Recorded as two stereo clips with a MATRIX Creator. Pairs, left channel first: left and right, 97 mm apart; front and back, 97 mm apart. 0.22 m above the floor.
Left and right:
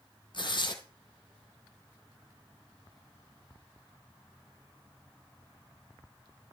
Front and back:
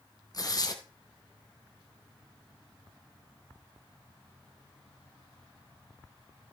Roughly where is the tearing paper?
Ahead left.